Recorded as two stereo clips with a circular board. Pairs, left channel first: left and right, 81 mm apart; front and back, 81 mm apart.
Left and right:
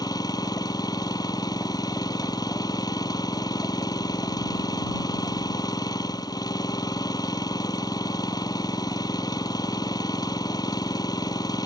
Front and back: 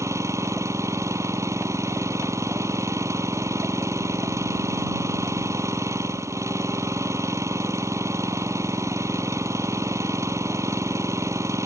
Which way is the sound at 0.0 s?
125° left.